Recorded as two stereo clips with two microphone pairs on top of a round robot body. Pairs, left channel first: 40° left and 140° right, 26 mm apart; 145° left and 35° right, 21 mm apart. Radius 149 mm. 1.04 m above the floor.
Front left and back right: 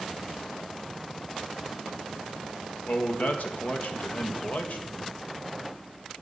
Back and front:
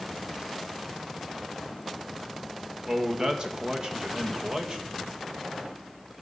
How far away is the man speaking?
About 1.9 m.